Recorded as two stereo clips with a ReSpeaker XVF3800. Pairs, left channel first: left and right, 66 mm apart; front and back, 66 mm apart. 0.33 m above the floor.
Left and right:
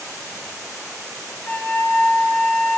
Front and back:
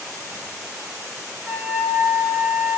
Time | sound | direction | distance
1.5 | a flute | 140° left | 1.0 m